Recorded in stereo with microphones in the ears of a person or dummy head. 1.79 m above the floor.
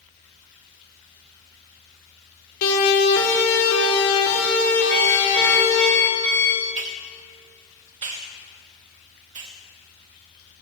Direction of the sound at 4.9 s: 5° left (ahead or behind).